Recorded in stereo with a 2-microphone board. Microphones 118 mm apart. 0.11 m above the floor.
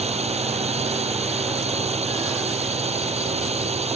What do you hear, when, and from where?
0.0 s a drone: 65° right (ahead or behind)